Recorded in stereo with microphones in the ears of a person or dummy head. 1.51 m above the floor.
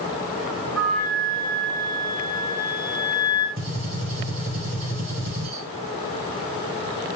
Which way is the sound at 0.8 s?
5° left (ahead or behind).